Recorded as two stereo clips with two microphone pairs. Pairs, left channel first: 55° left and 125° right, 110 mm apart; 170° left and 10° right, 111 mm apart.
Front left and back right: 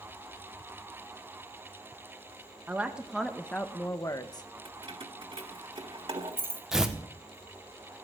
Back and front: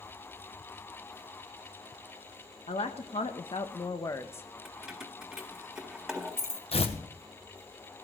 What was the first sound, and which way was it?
A woman speaking, 160° left.